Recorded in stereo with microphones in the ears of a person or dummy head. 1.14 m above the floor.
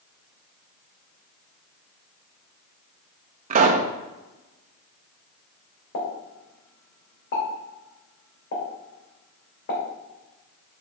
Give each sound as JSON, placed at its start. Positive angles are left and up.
{"t": 3.5, "sound": "a pop", "side_deg": -40, "distance_m": 0.5}
{"t": 5.9, "sound": "a pop", "side_deg": 60, "distance_m": 2.5}